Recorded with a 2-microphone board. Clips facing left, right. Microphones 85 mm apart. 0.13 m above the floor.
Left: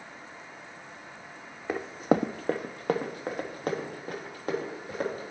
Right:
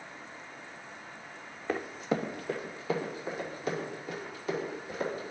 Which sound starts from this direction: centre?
Running footsteps, at 1.7 s.